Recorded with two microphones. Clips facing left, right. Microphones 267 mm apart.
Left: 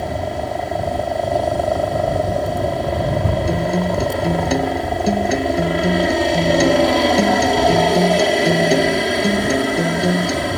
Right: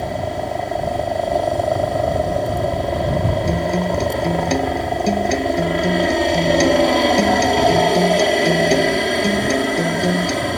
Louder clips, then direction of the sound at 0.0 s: Even; centre (ahead or behind).